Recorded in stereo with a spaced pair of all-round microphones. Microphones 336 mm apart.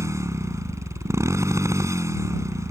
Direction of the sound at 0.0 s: 10° right (ahead or behind).